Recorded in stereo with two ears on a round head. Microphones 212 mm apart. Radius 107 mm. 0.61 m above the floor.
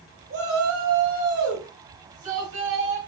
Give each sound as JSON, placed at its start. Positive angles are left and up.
{"t": 0.3, "sound": "a shout", "side_deg": -45, "distance_m": 5.0}